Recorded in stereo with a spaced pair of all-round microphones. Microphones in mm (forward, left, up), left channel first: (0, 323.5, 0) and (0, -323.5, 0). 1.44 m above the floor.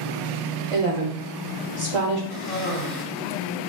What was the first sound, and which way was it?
A woman speaking, 50° right (ahead or behind).